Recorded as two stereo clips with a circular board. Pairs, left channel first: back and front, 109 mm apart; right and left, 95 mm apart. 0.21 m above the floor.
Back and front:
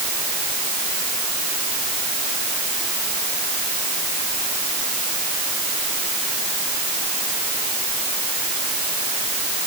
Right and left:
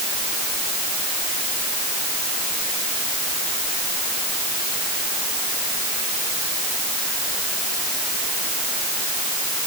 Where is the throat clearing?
I don't hear throat clearing.